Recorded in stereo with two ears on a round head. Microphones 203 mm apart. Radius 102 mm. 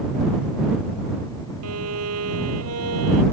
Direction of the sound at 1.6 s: 70° right (ahead or behind).